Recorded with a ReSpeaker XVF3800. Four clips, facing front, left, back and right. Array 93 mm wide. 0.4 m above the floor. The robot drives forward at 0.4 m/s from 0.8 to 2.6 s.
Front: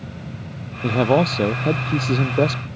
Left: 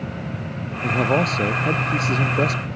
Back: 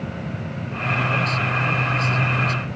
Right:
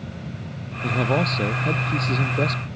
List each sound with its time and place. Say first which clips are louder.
0.8 s a man speaking: left 2 dB, front 6 dB; 15° left